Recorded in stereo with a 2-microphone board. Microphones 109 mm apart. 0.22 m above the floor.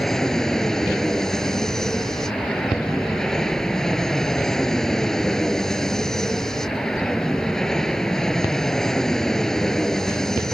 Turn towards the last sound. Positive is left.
turn(degrees=5)  # may be behind; listen again after turning